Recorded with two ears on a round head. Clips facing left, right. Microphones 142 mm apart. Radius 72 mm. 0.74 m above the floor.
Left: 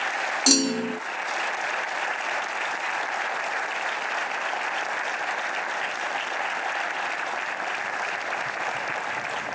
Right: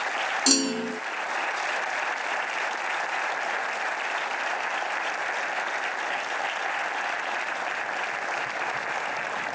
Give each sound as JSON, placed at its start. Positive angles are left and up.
{"t": 0.5, "sound": "a clunk", "side_deg": 5}